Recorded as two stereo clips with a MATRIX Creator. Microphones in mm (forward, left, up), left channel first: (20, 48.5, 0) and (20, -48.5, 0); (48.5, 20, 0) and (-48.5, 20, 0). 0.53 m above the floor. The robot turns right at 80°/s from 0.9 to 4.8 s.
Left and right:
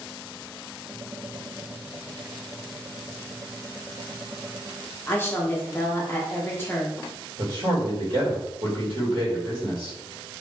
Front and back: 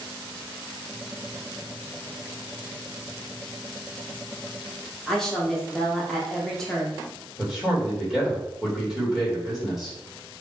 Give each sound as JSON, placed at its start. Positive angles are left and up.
{"t": 5.1, "sound": "a woman speaking", "azimuth_deg": 80, "distance_m": 0.7}
{"t": 7.4, "sound": "a man speaking", "azimuth_deg": -95, "distance_m": 1.5}